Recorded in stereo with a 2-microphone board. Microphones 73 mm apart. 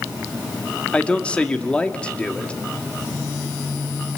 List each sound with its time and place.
0.9 s a man speaking: 15° left (ahead or behind), 1.9 m